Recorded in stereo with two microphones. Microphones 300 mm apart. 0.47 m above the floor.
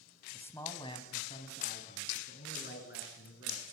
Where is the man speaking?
5° left (ahead or behind), 3 m; by 3.6 s 45° left (ahead or behind), 6.5 m.